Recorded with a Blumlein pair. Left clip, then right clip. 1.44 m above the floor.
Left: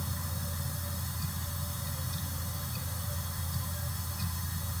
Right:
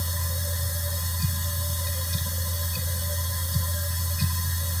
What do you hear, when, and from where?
0.0 s a machine running: 25° right